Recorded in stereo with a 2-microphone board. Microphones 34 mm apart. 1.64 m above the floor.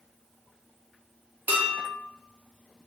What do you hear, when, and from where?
1.5 s dishes clattering: 50° right (ahead or behind), 1.4 m